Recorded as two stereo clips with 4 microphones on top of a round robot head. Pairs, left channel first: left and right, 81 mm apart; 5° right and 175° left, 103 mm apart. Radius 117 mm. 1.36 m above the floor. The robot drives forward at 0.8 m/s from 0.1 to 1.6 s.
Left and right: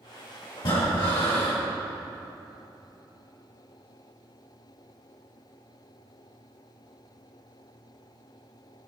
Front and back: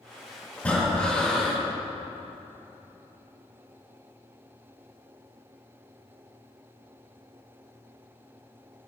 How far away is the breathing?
About 5 m.